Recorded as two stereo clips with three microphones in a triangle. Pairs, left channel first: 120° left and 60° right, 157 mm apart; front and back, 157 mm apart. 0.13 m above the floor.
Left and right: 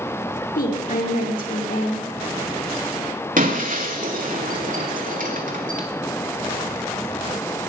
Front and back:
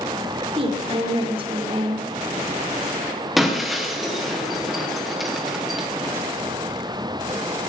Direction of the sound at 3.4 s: 90° right.